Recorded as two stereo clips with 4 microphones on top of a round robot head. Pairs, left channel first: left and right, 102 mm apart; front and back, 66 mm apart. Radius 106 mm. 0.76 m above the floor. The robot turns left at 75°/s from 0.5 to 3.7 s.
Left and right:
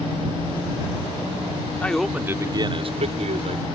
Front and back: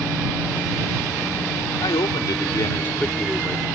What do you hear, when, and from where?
1.8 s a man speaking: 15° left; by 3.6 s 125° right